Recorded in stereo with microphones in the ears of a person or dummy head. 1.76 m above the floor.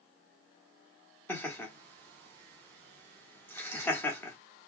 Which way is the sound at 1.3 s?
10° left (ahead or behind).